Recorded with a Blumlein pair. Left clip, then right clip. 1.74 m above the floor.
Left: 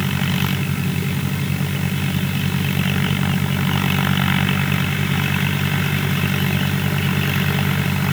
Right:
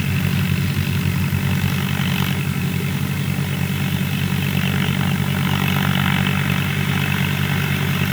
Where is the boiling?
I don't hear boiling.